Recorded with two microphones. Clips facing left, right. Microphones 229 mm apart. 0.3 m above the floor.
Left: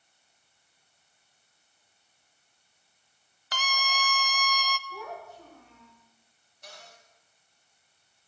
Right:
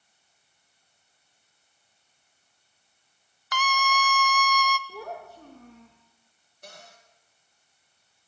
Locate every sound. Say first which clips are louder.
3.5 s a scream: right 7 dB; 30° left (ahead or behind), 1.1 m
4.9 s a child speaking: right 2 dB; 65° right (ahead or behind), 7.5 m
6.6 s a cupboard door: right 2 dB; 55° right (ahead or behind), 4.5 m